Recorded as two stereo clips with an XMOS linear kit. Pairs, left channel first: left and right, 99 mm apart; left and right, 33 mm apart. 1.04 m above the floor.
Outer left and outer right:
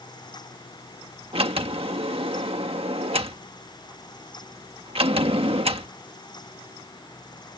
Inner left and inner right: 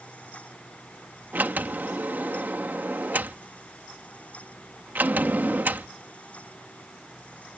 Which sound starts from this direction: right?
A sliding door, at 1.3 s.